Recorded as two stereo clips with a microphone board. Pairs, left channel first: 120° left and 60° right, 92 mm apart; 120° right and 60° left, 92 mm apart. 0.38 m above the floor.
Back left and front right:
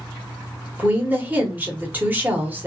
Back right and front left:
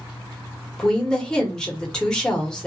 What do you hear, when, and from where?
0.8 s a woman speaking: 55° right, 1.0 m